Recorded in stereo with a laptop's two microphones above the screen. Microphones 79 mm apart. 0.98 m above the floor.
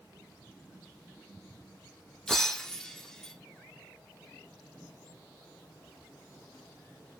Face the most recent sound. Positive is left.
turn(degrees=5)  # may be behind; listen again after turning